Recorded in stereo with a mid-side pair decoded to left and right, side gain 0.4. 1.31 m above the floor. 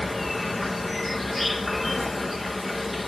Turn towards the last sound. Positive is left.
turn(degrees=25)